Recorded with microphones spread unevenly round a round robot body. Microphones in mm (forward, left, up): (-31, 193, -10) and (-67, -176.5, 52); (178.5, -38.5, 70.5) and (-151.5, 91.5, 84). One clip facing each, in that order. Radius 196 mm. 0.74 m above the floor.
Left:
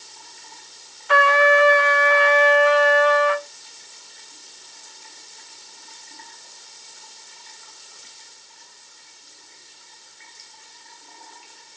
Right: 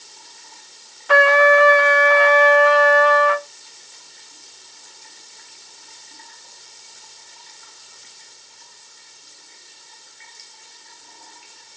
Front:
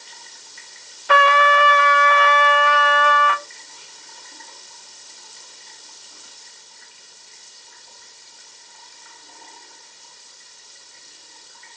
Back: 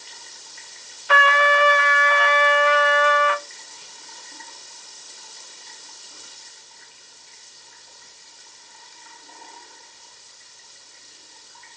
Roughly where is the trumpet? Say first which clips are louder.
Right 4 dB, front 3 dB; ahead right.